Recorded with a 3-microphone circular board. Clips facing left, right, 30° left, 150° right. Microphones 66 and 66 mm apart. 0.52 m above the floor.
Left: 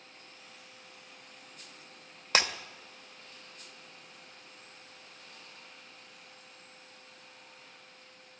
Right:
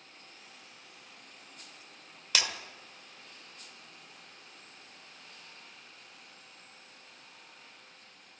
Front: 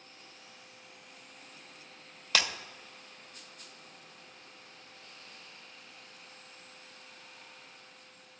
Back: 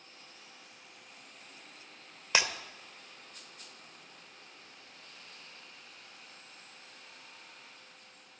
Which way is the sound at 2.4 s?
145° left.